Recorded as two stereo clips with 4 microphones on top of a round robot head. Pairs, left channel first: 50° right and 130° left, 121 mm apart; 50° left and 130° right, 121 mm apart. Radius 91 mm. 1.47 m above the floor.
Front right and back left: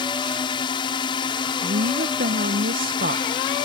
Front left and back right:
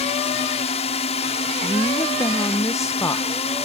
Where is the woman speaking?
115° left.